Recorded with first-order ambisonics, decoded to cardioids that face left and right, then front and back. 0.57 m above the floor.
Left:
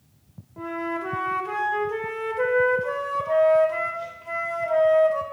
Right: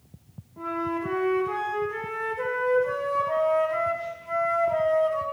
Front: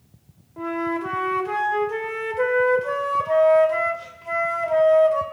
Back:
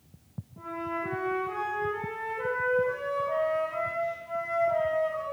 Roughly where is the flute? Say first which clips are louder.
Even, front 8 dB; ahead left.